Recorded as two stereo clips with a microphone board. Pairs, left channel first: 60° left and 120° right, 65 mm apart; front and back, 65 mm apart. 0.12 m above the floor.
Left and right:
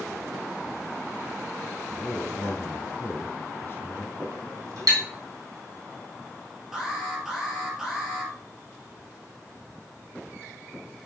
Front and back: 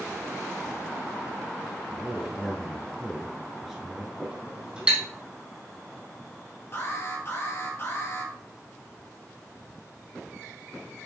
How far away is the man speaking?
About 1.5 m.